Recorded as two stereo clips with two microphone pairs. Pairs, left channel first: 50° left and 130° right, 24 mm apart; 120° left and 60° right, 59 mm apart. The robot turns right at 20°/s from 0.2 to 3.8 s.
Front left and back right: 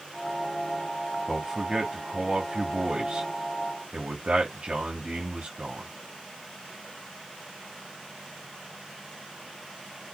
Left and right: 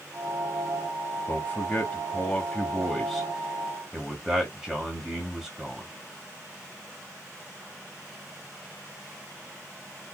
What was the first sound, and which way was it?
A man speaking, 165° left.